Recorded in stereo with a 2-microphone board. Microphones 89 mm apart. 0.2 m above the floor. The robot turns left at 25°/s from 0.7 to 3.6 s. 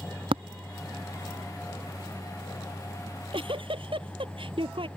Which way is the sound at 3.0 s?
75° right (ahead or behind).